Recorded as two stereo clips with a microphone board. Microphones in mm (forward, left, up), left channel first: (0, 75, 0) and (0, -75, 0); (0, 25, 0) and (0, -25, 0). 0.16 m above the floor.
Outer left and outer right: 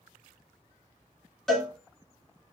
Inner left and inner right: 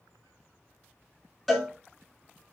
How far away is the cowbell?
About 1.1 m.